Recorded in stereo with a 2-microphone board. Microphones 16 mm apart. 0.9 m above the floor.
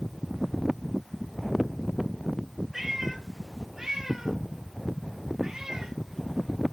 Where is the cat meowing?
20° right (ahead or behind), 5 m; by 6.0 s 35° right (ahead or behind), 3.5 m.